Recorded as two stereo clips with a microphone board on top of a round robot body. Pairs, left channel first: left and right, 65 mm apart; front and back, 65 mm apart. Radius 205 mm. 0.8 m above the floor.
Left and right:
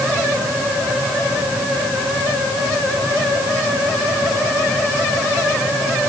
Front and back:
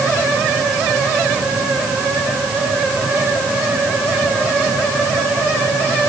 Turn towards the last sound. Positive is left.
No sound to turn to.